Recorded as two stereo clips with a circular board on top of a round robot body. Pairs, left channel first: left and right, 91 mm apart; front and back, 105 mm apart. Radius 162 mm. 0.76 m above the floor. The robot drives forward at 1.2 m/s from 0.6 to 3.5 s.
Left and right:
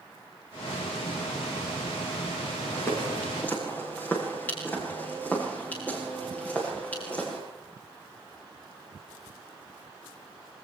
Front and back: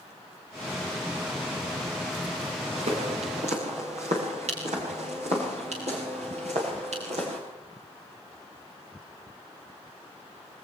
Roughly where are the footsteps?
Behind.